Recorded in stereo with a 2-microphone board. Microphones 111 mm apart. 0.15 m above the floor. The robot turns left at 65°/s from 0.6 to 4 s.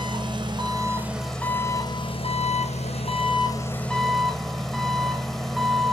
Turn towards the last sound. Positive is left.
turn(degrees=5)